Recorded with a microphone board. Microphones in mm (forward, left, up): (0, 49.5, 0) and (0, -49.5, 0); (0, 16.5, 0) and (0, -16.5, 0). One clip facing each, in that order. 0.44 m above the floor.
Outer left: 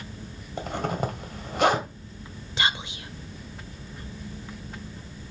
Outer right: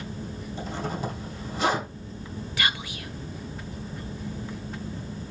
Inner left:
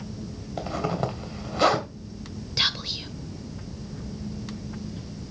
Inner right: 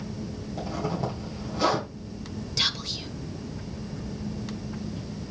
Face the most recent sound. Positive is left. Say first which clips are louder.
# outer left 2 dB, inner left 2 dB
turn(degrees=25)  # may be behind; listen again after turning